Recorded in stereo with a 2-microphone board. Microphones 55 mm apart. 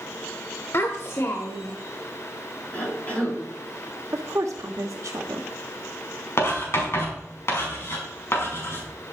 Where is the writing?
55° left (ahead or behind), 4.5 m.